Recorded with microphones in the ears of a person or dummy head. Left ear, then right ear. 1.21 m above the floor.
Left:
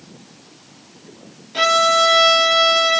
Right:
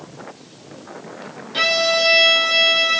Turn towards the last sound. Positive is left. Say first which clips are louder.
# left 3 dB
turn(degrees=-5)  # may be behind; listen again after turning